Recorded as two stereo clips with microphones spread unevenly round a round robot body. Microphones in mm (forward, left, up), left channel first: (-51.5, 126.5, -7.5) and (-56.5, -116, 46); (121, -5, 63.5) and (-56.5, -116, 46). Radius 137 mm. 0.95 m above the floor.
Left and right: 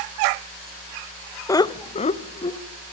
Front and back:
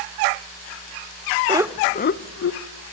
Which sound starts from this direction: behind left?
Laughter, at 1.5 s.